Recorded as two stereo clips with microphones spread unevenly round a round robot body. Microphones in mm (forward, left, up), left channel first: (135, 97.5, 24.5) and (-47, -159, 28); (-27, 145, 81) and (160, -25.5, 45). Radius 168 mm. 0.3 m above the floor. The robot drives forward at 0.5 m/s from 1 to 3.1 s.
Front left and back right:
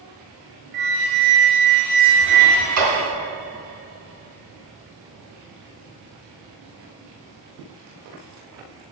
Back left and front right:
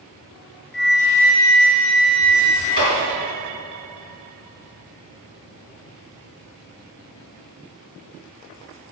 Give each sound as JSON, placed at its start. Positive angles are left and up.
{"t": 0.7, "sound": "a flute", "azimuth_deg": -175, "distance_m": 1.2}
{"t": 2.8, "sound": "a clap", "azimuth_deg": -160, "distance_m": 4.0}